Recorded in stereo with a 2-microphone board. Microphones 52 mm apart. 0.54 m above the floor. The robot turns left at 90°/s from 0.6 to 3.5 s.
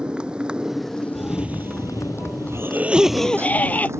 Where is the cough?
Straight ahead; by 3.9 s 150° left.